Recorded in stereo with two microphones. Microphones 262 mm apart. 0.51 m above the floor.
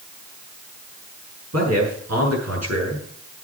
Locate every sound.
1.5 s a man speaking: 80° right, 7 m